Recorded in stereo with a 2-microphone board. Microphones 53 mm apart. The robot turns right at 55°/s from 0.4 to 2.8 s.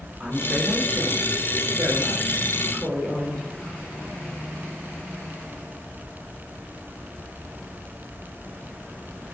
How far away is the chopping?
No chopping in this recording.